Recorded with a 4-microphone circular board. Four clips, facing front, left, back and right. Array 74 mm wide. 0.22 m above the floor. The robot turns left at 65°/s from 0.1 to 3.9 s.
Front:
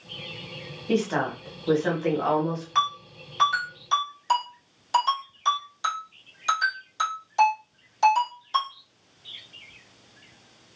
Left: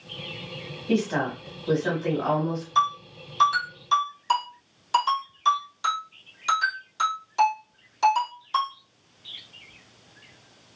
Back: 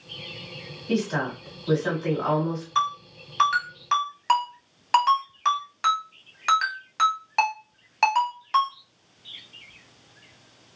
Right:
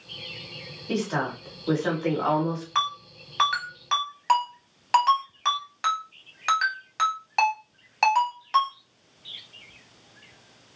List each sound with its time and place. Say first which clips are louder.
0.9 s a woman speaking: left 3 dB, front 1 dB; 25° left, 1.1 m; by 2.6 s 90° right, 1.1 m
2.8 s a ringtone: left 7 dB, even; 60° right, 1.6 m; by 8.7 s 135° right, 1.6 m